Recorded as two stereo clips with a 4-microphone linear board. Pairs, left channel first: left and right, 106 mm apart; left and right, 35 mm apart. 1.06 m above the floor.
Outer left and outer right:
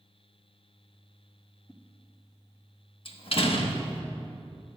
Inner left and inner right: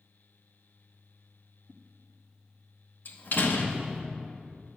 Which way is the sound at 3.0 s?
60° left (ahead or behind).